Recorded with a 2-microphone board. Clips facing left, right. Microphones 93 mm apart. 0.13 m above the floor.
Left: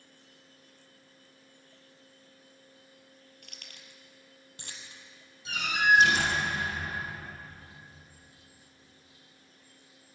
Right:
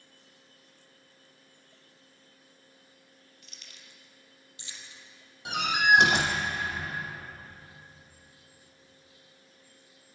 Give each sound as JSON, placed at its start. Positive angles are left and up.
{"t": 3.4, "sound": "keys jangling", "side_deg": 60, "distance_m": 2.5}
{"t": 5.5, "sound": "a door slam", "side_deg": -70, "distance_m": 4.5}